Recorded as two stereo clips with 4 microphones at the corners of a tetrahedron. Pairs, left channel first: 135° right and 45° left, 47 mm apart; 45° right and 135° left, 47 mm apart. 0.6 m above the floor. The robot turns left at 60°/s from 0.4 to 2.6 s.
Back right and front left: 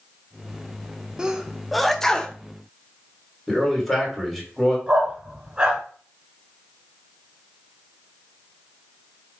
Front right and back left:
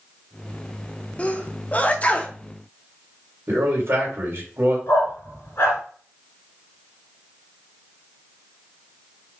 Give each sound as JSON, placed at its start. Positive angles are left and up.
{"t": 1.2, "sound": "a sneeze", "azimuth_deg": -15, "distance_m": 0.6}
{"t": 3.5, "sound": "a man speaking", "azimuth_deg": 140, "distance_m": 2.5}
{"t": 4.9, "sound": "a dog barking", "azimuth_deg": -25, "distance_m": 2.5}